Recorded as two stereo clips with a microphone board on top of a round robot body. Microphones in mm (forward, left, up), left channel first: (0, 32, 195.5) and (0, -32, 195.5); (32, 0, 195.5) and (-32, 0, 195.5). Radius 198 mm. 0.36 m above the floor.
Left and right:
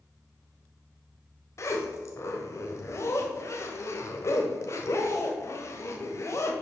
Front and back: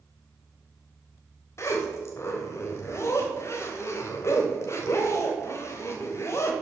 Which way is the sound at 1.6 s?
45° left.